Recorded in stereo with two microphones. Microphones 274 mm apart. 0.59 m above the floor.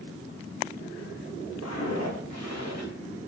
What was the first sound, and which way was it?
Footsteps, 65° left (ahead or behind).